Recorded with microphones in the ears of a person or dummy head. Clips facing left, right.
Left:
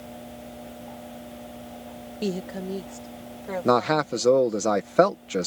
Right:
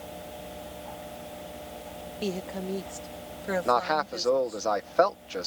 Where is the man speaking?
50° left (ahead or behind).